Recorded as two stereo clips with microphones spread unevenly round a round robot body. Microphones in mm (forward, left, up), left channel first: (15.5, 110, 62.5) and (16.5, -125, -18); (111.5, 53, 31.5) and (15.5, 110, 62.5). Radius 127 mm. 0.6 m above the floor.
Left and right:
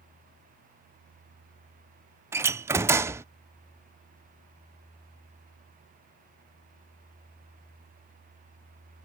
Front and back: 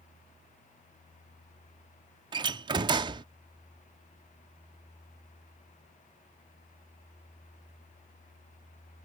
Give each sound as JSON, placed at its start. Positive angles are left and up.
{"t": 2.3, "sound": "a door slam", "azimuth_deg": -150}